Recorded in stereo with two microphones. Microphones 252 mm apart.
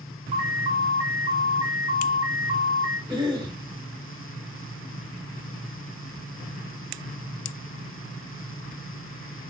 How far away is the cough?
About 0.9 m.